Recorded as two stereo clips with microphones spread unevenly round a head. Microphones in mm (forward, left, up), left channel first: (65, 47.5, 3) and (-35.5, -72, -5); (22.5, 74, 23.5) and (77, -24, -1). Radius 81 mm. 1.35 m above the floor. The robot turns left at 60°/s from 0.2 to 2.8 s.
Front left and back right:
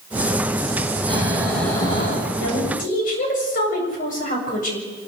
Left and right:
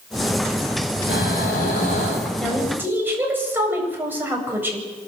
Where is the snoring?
165° left, 4.5 m; by 2.3 s 90° left, 4.5 m.